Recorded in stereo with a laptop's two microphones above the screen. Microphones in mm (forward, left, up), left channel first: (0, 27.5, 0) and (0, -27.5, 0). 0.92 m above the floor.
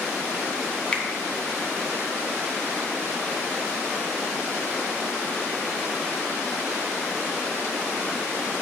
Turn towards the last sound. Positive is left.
turn(degrees=20)  # may be behind; listen again after turning